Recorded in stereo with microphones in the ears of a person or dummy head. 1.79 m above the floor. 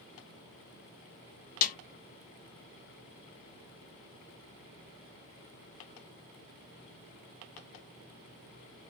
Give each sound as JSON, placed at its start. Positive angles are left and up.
{"t": 1.6, "sound": "a snare drum", "side_deg": 45, "distance_m": 0.8}